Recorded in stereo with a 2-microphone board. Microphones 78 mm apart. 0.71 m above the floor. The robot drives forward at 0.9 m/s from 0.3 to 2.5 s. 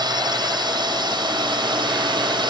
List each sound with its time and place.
0.0 s a drone: 65° right (ahead or behind); by 2.5 s 75° right (ahead or behind)